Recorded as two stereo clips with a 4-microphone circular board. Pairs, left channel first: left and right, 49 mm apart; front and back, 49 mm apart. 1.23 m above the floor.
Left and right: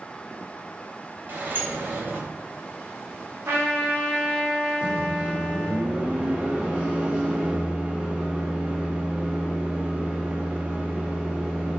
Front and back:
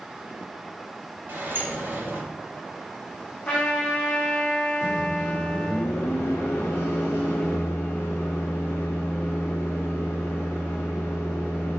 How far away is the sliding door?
About 2.5 m.